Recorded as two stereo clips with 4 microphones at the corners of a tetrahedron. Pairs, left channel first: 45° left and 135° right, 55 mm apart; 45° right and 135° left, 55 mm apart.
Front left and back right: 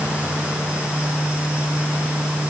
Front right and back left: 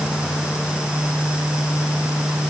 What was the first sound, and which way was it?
Only background noise.